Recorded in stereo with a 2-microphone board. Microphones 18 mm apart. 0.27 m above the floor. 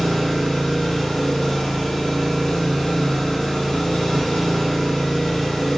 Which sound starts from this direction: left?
An engine running, at 0.0 s.